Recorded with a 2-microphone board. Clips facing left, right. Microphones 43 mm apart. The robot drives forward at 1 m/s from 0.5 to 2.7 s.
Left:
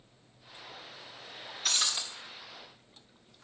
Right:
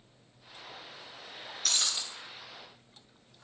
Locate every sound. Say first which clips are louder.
1.6 s breaking glass: left 1 dB; 15° left (ahead or behind), 4 m